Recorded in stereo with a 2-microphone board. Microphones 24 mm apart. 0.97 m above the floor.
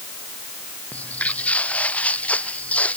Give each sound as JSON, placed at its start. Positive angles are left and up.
{"t": 0.9, "sound": "footsteps", "side_deg": 85}